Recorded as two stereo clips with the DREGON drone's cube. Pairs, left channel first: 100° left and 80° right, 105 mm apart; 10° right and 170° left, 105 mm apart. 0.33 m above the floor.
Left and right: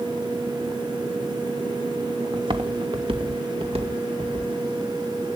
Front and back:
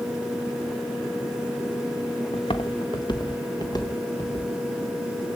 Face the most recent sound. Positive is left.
turn(degrees=-65)